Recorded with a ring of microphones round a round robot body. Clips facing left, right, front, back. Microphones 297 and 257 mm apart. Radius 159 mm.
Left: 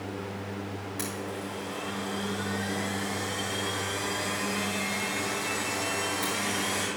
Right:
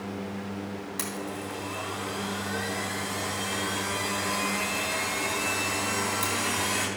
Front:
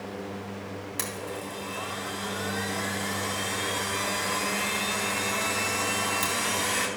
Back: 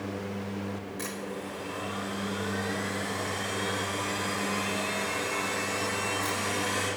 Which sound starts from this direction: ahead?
A blender, at 1.0 s.